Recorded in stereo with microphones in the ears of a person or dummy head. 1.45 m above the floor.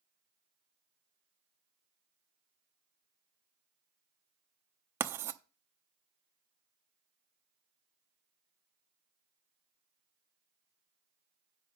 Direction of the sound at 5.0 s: 10° right (ahead or behind).